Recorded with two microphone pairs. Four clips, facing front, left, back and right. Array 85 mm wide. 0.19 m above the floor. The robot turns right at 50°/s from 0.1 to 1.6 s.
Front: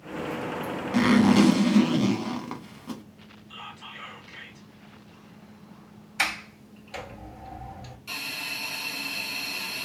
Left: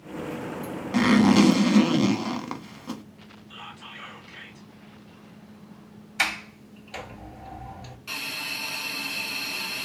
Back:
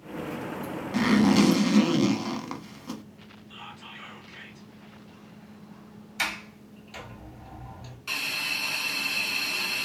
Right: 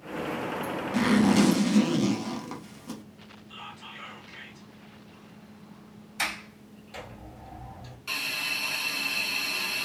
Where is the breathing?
I don't hear breathing.